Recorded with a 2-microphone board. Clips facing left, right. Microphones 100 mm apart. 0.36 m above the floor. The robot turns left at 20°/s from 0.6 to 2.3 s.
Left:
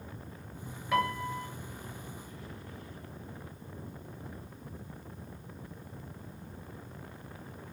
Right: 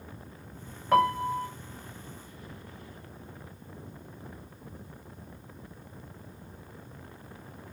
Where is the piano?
40° right (ahead or behind), 1.9 m; by 1.5 s 45° right (ahead or behind), 1.9 m.